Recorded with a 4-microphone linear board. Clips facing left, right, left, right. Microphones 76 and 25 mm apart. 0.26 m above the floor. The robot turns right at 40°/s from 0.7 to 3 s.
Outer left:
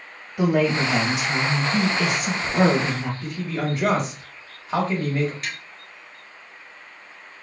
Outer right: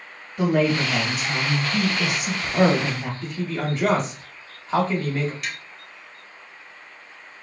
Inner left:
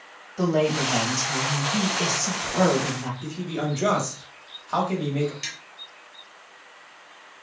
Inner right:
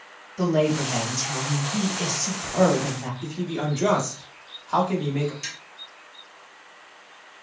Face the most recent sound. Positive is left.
turn(degrees=35)  # may be behind; listen again after turning